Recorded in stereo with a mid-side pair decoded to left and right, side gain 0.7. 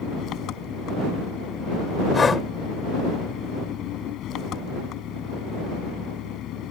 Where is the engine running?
50° left.